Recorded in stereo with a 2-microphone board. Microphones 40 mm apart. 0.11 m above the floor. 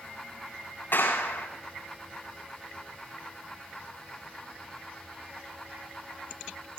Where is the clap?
60° left (ahead or behind), 8 m.